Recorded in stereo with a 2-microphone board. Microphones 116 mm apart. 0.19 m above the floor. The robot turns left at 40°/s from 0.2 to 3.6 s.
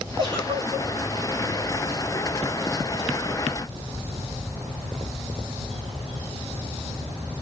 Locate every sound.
0.2 s a giggle: 40° right (ahead or behind), 3 m; by 0.9 s 65° right (ahead or behind), 3 m